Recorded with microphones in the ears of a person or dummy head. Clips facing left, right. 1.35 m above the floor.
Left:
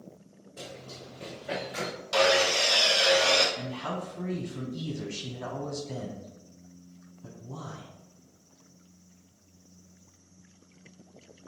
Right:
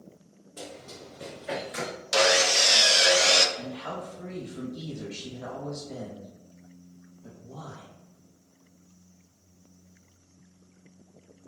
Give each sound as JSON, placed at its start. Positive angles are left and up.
{"t": 0.6, "sound": "running footsteps", "side_deg": -15, "distance_m": 1.5}
{"t": 2.1, "sound": "sawing", "side_deg": -25, "distance_m": 0.5}
{"t": 3.6, "sound": "a man speaking", "side_deg": 70, "distance_m": 1.1}